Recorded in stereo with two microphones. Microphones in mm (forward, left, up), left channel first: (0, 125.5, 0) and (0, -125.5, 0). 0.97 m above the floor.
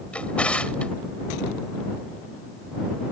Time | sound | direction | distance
0.1 | a drawer | 5° left (ahead or behind) | ?